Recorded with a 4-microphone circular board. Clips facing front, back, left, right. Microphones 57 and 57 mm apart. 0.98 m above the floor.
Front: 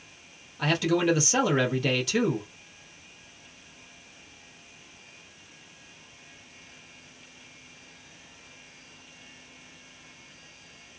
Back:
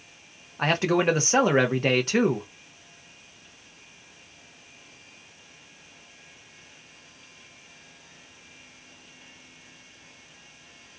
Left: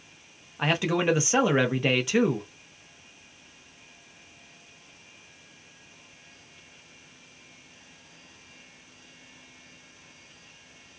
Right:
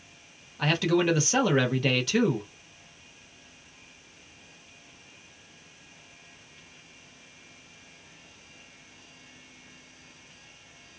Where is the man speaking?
150° left, 0.8 m.